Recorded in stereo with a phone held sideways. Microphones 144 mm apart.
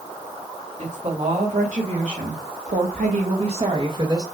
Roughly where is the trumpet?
No trumpet in this recording.